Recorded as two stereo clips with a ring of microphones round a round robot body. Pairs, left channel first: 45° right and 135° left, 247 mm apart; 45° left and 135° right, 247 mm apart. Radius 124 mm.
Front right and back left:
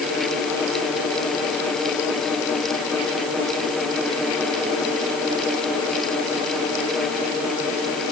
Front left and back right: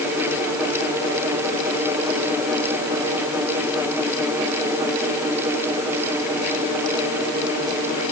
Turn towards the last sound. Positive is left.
No sound to turn to.